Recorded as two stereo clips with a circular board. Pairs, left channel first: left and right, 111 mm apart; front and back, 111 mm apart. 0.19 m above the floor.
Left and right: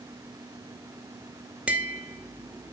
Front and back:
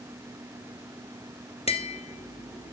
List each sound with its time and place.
1.7 s tapping: 10° right, 1.7 m